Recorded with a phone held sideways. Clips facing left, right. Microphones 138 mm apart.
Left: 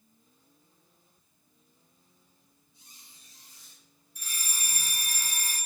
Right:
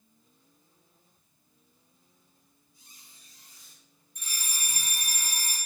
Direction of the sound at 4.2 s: 5° left (ahead or behind).